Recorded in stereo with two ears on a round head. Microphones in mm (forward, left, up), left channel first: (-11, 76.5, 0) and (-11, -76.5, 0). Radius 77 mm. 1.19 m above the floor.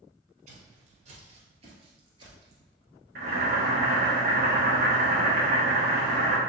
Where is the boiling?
60° right (ahead or behind), 1.2 m.